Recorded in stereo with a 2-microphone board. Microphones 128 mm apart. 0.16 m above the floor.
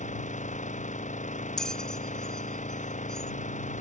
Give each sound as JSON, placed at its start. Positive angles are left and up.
{"t": 0.0, "sound": "an engine running", "side_deg": 75}
{"t": 1.6, "sound": "a bell", "side_deg": 5}